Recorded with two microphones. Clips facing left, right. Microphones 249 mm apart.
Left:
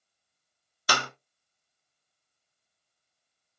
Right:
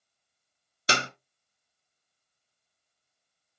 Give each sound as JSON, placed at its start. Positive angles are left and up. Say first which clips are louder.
{"t": 0.9, "sound": "a clap", "louder": "right 1 dB", "side_deg": -25, "distance_m": 0.9}